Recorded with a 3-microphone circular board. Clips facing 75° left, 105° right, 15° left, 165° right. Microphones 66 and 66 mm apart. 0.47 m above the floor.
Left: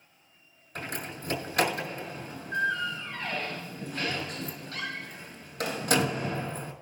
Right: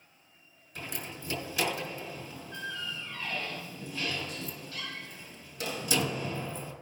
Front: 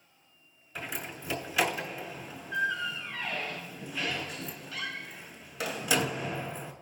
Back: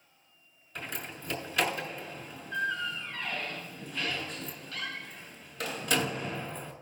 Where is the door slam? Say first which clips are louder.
Left 4 dB, front 1 dB; 100° left, 2.5 m.